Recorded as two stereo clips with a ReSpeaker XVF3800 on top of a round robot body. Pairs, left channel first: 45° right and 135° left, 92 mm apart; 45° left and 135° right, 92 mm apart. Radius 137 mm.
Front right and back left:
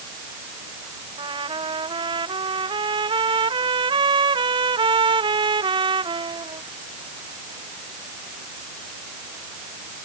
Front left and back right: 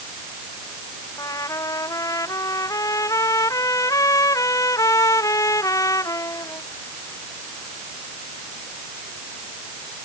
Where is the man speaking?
I don't hear a man speaking.